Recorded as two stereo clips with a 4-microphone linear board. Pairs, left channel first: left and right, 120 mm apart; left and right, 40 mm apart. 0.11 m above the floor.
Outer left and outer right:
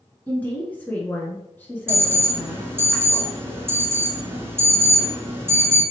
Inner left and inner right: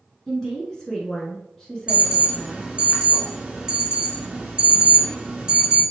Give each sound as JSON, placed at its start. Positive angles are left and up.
{"t": 0.3, "sound": "a woman speaking", "side_deg": 10, "distance_m": 1.2}
{"t": 1.9, "sound": "an alarm", "side_deg": -20, "distance_m": 0.9}